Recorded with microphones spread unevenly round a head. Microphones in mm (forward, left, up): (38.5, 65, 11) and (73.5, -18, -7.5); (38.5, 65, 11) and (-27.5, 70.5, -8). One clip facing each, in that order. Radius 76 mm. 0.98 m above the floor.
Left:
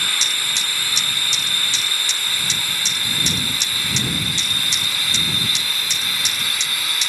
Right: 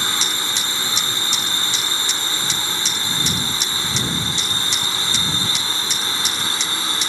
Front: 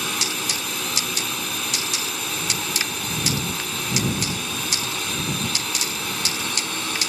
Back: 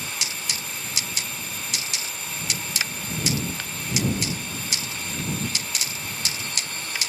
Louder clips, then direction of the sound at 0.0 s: Right 2 dB, front 6 dB; straight ahead.